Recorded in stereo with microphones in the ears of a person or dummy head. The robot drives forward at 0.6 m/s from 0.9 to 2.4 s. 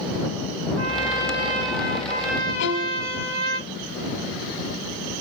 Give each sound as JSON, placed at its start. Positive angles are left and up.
{"t": 0.8, "sound": "a trumpet", "side_deg": -75, "distance_m": 1.1}
{"t": 2.6, "sound": "a violin", "side_deg": 85, "distance_m": 0.7}